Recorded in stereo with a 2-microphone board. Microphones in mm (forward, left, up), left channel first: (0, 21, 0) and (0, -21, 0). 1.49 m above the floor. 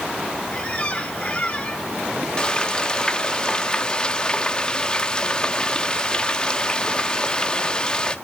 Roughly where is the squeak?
Left.